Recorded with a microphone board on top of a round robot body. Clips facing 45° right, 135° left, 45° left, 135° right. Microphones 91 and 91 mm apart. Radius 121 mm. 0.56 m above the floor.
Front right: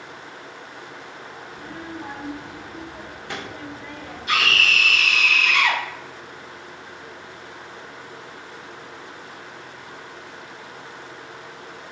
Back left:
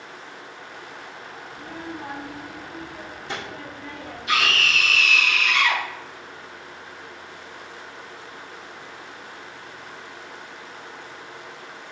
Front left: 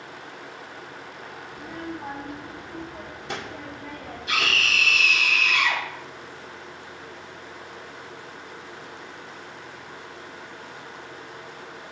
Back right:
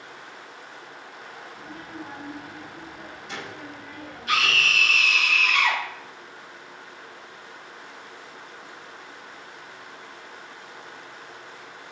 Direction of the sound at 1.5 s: 70° left.